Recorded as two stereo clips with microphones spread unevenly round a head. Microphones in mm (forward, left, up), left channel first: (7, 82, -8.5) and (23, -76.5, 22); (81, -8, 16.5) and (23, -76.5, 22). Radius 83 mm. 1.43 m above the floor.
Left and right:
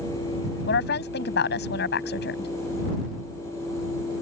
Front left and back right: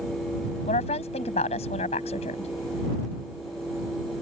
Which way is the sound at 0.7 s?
75° left.